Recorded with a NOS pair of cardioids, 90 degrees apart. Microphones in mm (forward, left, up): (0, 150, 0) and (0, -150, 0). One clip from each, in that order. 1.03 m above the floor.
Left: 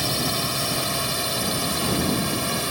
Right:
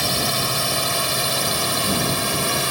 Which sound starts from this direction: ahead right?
A drone, at 0.0 s.